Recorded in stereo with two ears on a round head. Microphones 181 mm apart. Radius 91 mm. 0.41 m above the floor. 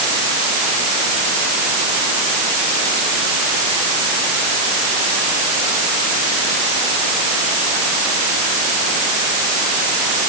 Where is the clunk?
I don't hear a clunk.